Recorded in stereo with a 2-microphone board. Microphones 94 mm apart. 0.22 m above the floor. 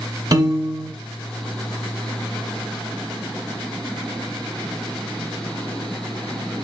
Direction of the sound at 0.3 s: 40° right (ahead or behind).